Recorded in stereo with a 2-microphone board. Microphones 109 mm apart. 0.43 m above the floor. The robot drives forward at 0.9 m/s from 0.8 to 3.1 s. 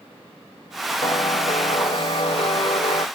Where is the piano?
50° left (ahead or behind); by 3.1 s 55° left (ahead or behind).